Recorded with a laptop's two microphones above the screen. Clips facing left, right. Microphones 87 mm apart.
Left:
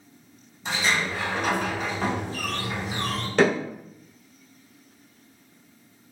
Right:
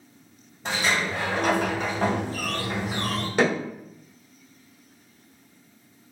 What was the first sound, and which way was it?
A sliding door, 65° right (ahead or behind).